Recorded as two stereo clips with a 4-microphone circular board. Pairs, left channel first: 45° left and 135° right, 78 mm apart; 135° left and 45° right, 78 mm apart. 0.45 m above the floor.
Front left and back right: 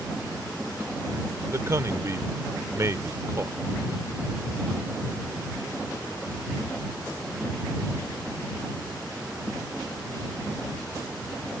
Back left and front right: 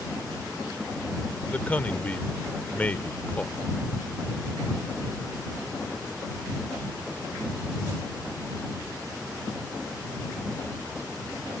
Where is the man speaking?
165° right.